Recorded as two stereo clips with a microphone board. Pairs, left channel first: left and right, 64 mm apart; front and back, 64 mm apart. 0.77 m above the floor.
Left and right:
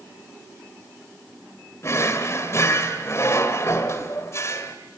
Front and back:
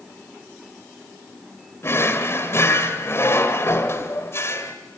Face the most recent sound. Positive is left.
turn(degrees=50)